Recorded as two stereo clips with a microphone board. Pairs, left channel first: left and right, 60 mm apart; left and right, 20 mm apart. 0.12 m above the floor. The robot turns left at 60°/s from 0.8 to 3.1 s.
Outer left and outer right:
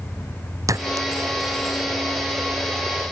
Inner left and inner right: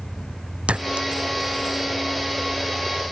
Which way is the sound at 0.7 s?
70° right (ahead or behind).